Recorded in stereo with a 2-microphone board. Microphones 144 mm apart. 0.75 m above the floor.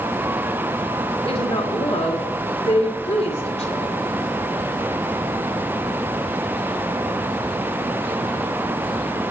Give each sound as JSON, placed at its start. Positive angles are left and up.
{"t": 1.2, "sound": "a woman speaking", "side_deg": 45, "distance_m": 2.5}